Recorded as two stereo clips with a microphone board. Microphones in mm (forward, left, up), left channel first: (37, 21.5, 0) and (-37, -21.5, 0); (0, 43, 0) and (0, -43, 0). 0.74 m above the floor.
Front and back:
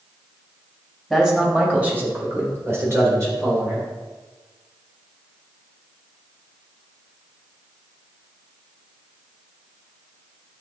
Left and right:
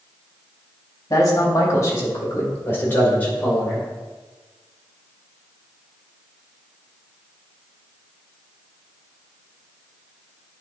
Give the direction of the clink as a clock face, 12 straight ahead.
No clink in this recording.